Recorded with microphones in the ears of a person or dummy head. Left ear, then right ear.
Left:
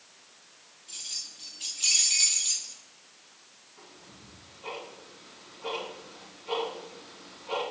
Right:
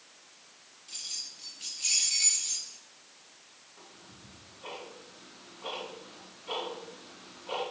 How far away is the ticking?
About 3 m.